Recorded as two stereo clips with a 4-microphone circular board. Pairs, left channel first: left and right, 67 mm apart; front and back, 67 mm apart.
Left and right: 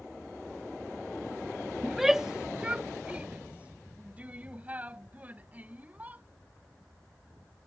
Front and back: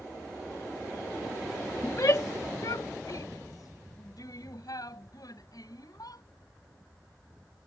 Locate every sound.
1.8 s a shout: 5° left; by 6.2 s 25° right